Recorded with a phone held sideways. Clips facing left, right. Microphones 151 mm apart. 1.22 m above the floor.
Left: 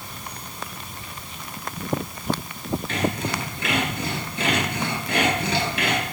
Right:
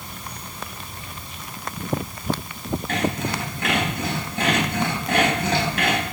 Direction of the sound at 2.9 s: 55° right (ahead or behind).